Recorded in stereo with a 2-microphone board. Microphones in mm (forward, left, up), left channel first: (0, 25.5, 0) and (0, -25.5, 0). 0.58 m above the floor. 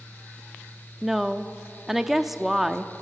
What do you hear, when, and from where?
1.0 s a woman speaking: 5° right (ahead or behind), 0.7 m